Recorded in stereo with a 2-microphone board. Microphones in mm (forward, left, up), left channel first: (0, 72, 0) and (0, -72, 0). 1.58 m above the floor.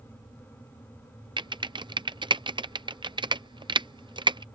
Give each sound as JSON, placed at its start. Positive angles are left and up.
{"t": 1.4, "sound": "typing on a keyboard", "side_deg": -30}